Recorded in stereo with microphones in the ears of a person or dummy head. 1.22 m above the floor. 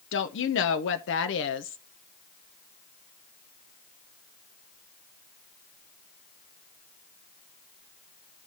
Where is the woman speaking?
60° left (ahead or behind), 0.6 m.